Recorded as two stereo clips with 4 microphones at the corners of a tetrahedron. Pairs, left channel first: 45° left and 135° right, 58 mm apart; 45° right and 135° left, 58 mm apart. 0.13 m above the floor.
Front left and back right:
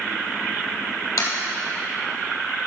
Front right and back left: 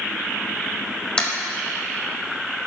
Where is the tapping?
30° left, 1.9 m.